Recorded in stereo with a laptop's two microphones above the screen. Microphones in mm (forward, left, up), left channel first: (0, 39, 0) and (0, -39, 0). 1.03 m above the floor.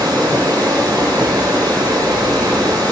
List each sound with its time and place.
0.0 s running water: 85° right, 3.5 m